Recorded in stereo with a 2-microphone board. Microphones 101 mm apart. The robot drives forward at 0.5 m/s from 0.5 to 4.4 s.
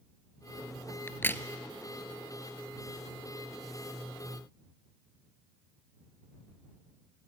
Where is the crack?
25° left (ahead or behind), 0.7 m; by 1.4 s 20° left (ahead or behind), 0.9 m.